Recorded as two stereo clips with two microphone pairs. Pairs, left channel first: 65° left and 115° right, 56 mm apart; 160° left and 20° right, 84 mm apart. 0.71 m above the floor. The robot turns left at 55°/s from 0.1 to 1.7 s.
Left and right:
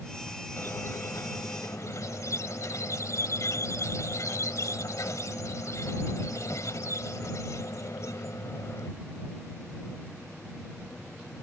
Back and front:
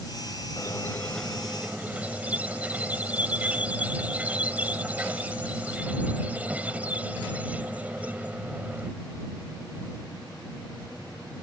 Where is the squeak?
115° left; by 8.9 s 55° left.